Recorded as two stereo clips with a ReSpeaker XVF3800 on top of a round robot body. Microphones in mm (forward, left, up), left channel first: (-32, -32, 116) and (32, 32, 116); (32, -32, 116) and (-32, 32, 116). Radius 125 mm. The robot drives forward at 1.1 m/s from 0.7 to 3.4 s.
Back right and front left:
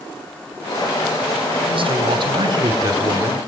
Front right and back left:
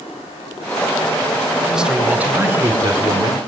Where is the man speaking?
50° left, 2.5 m; by 3.4 s 105° left, 2 m.